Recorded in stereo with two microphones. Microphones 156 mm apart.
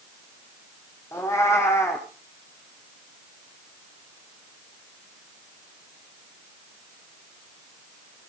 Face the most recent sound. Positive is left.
turn(degrees=15)  # may be behind; listen again after turning